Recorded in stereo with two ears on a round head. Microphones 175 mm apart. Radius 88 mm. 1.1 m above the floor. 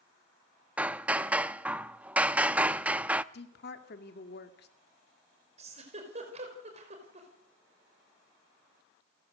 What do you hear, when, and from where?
0.8 s hammering: 5° right (ahead or behind), 0.5 m
3.3 s a woman speaking: 55° left (ahead or behind), 2.5 m
5.6 s a giggle: 35° right (ahead or behind), 5 m